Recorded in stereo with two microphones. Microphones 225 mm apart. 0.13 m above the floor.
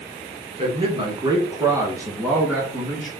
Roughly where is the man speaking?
Right.